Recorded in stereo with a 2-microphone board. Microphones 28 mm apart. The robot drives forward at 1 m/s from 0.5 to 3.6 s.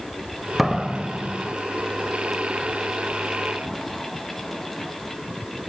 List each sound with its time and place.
0.6 s a door slam: 5° right (ahead or behind)